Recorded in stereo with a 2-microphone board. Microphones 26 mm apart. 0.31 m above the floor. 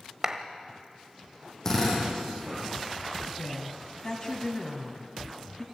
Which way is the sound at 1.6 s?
15° left (ahead or behind).